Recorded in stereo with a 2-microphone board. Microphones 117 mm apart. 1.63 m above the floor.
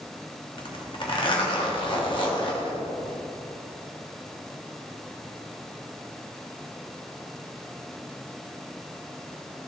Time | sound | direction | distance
0.6 | a zipper | 45° left (ahead or behind) | 1.4 m